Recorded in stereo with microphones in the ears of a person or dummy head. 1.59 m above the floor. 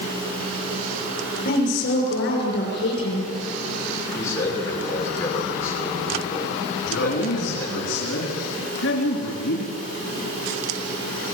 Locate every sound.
1.4 s a woman speaking: 70° left (ahead or behind), 7 m
4.2 s a man speaking: 15° left (ahead or behind), 6 m
6.8 s a man speaking: 75° left (ahead or behind), 4 m